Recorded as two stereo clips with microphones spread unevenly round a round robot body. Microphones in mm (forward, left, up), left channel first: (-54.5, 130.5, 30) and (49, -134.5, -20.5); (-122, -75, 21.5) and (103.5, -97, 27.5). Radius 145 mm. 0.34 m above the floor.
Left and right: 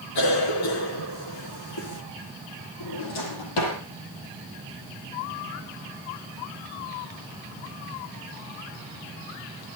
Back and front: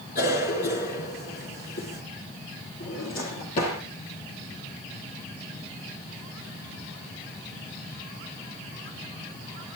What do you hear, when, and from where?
0.1 s a cough: 115° left, 5 m
2.8 s a drawer: 110° left, 6 m